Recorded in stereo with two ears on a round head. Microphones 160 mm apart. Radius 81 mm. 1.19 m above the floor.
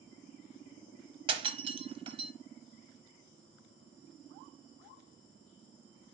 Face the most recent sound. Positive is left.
turn(degrees=-30)  # may be behind; listen again after turning